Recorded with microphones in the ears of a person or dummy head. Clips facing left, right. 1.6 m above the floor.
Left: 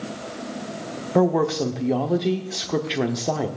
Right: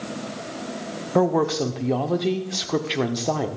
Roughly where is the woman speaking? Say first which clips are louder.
Left 1 dB; centre.